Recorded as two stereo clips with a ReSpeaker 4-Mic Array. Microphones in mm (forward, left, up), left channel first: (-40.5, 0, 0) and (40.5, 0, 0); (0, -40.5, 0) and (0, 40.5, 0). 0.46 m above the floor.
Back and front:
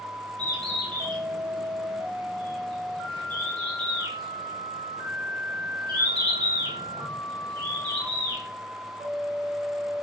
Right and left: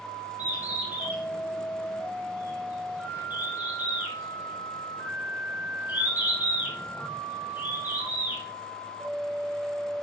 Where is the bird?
20° left, 3.5 m.